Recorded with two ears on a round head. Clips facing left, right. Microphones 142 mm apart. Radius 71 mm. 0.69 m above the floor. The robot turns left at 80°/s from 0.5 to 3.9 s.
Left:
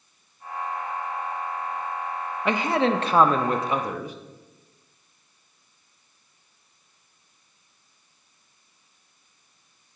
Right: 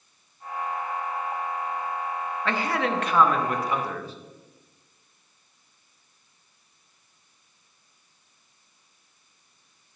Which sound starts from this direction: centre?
A man speaking, at 2.5 s.